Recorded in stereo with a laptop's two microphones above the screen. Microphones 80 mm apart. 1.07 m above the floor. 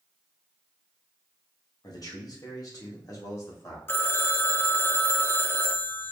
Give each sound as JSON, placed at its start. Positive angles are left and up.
{"t": 1.8, "sound": "a man speaking", "side_deg": 55, "distance_m": 1.2}
{"t": 3.9, "sound": "a phone ringing", "side_deg": 25, "distance_m": 0.6}